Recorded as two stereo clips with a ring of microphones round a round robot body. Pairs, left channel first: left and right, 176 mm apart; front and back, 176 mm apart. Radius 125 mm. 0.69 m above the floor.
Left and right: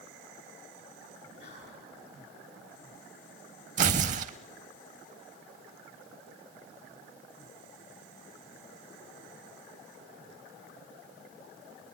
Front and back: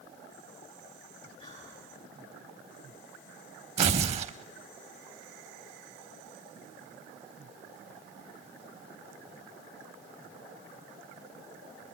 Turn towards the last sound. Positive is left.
turn(degrees=-130)